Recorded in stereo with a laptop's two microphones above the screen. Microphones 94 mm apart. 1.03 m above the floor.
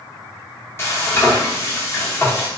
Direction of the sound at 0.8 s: 30° left (ahead or behind).